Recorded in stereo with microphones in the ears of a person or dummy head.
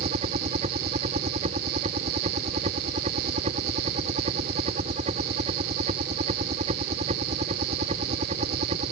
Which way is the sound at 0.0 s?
45° right (ahead or behind).